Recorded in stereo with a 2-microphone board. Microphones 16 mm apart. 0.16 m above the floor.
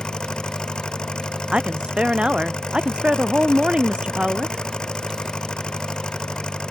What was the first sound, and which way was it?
An engine running, 60° left (ahead or behind).